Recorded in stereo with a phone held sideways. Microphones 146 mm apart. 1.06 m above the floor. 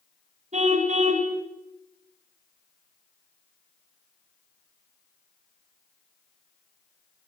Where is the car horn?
50° right (ahead or behind), 3.5 m.